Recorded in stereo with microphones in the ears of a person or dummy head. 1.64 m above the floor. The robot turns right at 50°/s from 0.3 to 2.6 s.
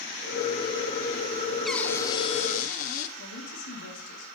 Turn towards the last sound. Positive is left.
turn(degrees=70)  # may be behind; listen again after turning